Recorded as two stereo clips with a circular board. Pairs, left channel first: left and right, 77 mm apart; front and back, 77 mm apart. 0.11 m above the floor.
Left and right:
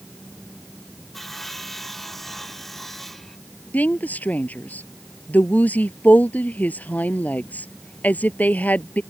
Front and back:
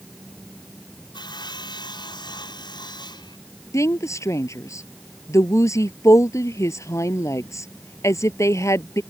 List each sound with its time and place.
1.1 s sawing: 5° left
3.7 s a woman speaking: 30° left